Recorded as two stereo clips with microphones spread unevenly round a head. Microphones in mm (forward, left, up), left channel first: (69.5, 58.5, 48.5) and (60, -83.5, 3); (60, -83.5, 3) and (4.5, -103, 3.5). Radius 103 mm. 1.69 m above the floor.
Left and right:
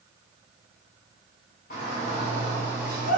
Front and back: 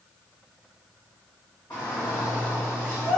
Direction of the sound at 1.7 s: 80° left.